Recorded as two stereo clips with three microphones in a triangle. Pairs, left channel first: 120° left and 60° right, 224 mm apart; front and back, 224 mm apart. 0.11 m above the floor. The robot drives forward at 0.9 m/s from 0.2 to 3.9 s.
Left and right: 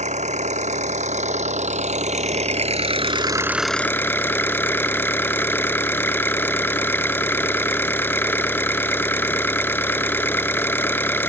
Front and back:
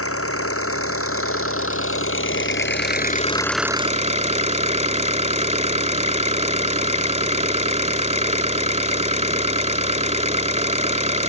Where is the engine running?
Straight ahead; by 11.3 s 170° right.